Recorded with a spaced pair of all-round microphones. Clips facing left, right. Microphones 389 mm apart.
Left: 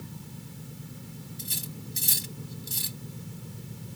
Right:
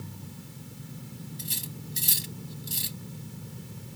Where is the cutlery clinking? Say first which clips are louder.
Even; 60° left (ahead or behind).